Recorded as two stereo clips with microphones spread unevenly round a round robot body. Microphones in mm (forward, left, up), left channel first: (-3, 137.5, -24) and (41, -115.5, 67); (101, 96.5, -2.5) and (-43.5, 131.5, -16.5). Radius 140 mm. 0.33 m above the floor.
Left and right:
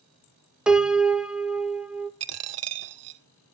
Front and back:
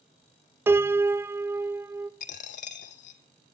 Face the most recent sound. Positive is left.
turn(degrees=-50)